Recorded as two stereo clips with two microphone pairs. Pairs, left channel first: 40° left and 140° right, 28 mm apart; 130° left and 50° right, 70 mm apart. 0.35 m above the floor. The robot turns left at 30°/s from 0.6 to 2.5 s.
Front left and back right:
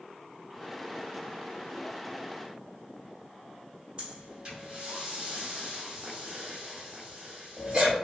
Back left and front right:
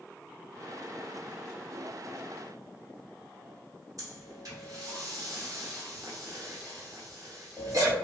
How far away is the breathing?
About 1.1 m.